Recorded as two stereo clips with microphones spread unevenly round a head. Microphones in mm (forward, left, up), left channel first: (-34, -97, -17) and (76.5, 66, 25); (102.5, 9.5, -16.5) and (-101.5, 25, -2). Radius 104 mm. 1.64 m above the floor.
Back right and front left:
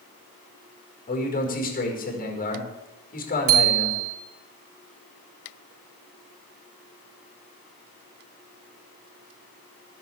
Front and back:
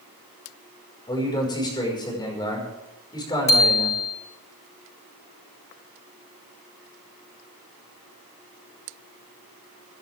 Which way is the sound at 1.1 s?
75° right.